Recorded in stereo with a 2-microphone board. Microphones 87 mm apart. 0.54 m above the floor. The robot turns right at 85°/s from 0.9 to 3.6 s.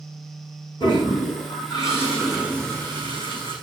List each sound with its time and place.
0.8 s a toilet flushing: 65° left, 6 m; by 3.5 s 70° right, 6 m